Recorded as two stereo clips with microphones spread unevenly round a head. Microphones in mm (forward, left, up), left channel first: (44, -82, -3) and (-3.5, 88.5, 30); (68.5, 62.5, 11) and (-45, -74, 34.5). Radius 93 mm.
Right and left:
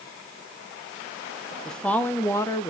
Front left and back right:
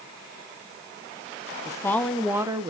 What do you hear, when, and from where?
1.6 s a woman speaking: straight ahead, 0.9 m; by 2.7 s 85° right, 0.7 m